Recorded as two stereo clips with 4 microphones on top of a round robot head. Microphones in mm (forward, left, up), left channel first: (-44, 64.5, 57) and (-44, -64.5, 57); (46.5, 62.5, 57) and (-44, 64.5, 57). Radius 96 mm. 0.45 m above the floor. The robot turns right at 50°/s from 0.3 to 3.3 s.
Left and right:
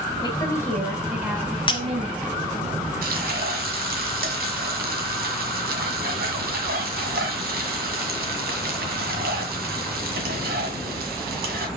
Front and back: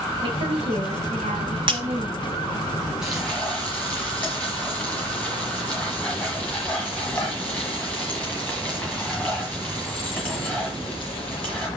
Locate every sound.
0.2 s a woman speaking: 145° left, 4 m; by 2.3 s 110° right, 4 m
1.7 s breaking glass: 145° left, 2 m; by 1.8 s 150° left, 2 m
3.0 s frying: 95° right, 1.7 m; by 11.7 s 80° right, 1.7 m